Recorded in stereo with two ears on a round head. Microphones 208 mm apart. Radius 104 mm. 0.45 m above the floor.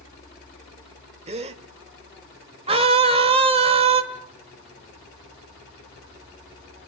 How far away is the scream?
About 1.6 m.